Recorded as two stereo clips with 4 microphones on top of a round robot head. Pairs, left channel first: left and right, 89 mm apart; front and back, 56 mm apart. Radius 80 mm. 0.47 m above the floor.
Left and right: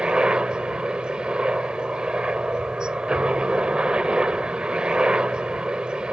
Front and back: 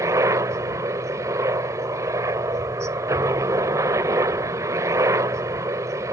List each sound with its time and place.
0.0 s a helicopter: 170° right